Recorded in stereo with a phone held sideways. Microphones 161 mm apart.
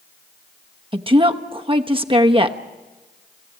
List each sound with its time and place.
0.9 s a woman speaking: 30° right (ahead or behind), 1.0 m